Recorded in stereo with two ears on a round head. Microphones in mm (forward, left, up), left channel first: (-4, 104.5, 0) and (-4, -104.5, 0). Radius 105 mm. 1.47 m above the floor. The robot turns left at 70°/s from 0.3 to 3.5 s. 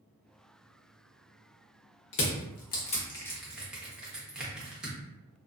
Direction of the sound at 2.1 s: 55° left (ahead or behind).